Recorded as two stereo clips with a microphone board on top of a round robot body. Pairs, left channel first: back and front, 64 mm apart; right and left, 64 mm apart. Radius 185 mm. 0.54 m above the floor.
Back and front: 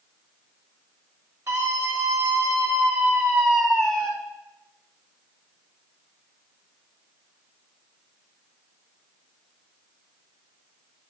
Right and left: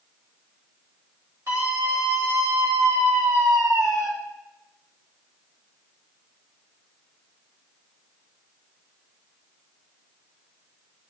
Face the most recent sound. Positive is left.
turn(degrees=100)